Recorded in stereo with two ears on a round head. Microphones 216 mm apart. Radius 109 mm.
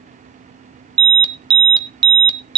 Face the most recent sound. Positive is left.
turn(degrees=-20)  # may be behind; listen again after turning